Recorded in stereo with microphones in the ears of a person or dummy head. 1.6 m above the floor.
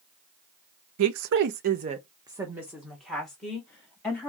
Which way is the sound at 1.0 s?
85° right.